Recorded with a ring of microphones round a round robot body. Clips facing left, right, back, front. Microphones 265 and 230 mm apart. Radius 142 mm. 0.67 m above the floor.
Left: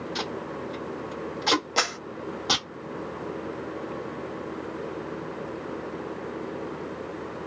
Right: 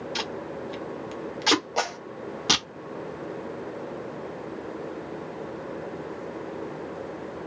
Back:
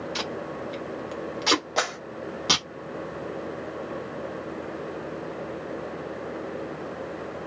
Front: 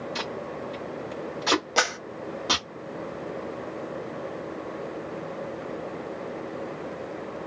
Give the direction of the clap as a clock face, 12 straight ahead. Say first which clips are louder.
Right 1 dB, front 1 dB; 11 o'clock.